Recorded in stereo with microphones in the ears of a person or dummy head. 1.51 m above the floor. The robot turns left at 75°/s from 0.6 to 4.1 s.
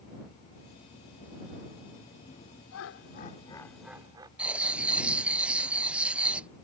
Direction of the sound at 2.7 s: 85° left.